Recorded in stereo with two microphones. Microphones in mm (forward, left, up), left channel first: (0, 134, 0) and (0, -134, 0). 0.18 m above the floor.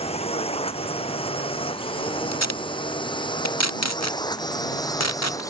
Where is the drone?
20° left (ahead or behind); by 5.5 s 10° left (ahead or behind).